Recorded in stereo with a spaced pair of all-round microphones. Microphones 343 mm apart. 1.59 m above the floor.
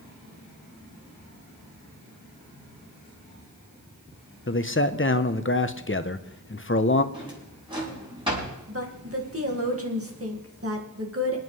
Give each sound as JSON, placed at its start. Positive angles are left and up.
{"t": 4.5, "sound": "a man speaking", "side_deg": 35, "distance_m": 0.7}
{"t": 7.1, "sound": "a drawer", "side_deg": -15, "distance_m": 6.5}
{"t": 8.7, "sound": "a woman speaking", "side_deg": -40, "distance_m": 1.9}